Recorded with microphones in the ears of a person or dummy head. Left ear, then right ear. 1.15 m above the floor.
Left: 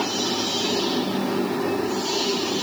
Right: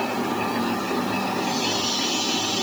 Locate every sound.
Only background noise.